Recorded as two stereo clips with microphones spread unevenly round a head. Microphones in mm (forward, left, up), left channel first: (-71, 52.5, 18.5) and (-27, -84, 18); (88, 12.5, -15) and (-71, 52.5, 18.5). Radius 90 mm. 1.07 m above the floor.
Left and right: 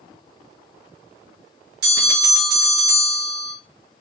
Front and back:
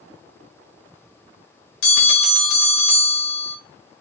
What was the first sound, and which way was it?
A bell, 40° right.